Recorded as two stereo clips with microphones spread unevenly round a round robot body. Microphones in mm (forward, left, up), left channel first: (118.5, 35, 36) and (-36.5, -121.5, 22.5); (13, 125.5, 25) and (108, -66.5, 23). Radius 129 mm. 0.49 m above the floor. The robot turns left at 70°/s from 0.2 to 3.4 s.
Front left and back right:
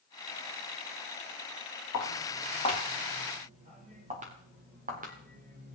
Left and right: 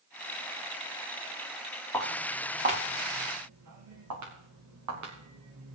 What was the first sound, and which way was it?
Footsteps, 35° left.